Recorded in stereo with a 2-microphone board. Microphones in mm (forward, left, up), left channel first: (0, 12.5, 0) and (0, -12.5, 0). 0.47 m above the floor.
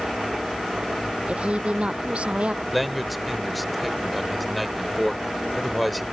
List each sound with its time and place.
1.3 s a woman speaking: 55° right (ahead or behind)
2.7 s a man speaking: centre (ahead or behind)